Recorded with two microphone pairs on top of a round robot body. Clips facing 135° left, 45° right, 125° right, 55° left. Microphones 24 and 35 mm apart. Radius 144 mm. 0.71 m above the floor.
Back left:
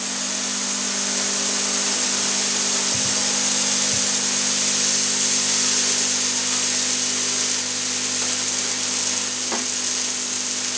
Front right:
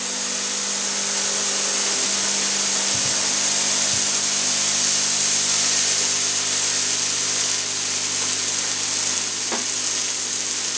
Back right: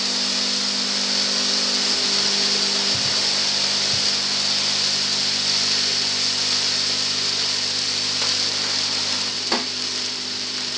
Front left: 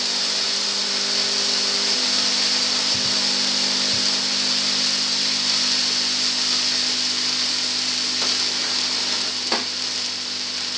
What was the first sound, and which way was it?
Only background noise.